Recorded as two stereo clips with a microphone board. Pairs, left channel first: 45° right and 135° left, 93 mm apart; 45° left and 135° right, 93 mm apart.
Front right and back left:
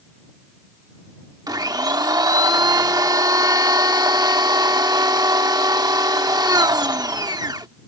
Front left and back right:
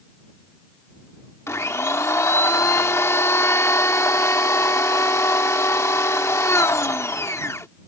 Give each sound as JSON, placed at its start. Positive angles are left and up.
{"t": 1.5, "sound": "a blender", "azimuth_deg": 100}